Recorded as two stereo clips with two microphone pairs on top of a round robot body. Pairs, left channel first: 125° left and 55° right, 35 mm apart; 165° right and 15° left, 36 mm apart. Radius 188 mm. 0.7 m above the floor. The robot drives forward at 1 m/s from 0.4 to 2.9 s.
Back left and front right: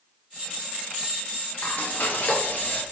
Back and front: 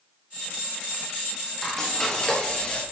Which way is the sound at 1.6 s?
115° left.